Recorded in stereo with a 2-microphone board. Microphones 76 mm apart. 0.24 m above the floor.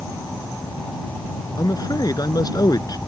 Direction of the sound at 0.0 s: 60° left (ahead or behind).